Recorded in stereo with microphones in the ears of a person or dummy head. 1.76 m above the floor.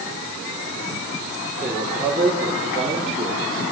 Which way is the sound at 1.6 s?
5° right (ahead or behind).